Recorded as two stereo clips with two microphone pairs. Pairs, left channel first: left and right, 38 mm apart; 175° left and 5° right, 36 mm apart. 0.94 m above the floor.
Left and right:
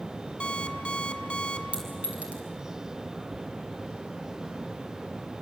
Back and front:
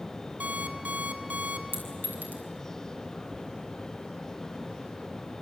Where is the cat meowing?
I don't hear a cat meowing.